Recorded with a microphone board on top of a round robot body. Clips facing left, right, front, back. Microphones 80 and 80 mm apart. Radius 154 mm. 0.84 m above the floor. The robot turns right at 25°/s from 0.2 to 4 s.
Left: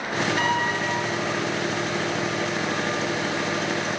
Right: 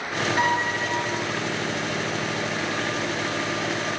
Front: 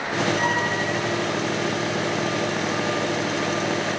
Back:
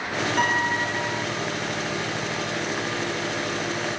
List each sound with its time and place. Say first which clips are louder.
0.4 s a piano: right 3 dB, even; 155° right, 9 m; by 1.1 s 135° right, 9 m